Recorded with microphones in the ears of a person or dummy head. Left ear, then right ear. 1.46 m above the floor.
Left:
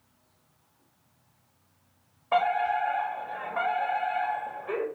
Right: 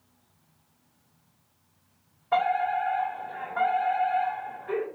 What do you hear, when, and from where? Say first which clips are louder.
2.3 s a fire alarm: even; 30° left (ahead or behind), 3 m